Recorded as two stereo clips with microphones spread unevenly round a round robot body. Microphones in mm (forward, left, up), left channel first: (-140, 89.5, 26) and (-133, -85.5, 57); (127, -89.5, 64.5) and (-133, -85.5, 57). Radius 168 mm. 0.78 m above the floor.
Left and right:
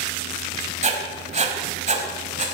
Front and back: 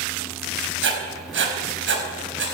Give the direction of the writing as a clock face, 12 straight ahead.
5 o'clock.